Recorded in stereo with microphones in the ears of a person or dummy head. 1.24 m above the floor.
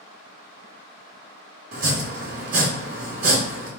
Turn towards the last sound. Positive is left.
turn(degrees=-50)  # may be behind; listen again after turning